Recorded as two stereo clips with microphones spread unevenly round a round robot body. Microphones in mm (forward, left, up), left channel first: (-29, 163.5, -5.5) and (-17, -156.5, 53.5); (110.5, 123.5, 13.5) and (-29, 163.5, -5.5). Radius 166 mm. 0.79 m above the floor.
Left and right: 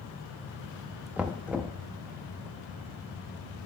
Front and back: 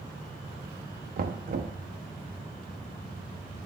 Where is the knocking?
Straight behind, 0.6 m.